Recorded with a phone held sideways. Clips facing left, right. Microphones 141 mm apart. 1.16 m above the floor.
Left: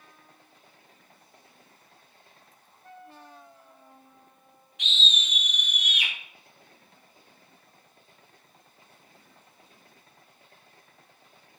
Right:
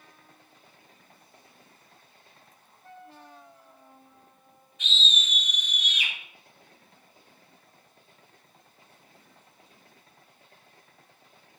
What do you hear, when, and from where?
4.8 s a scream: 75° left (ahead or behind), 5.5 m; by 6.1 s 60° left (ahead or behind), 4.5 m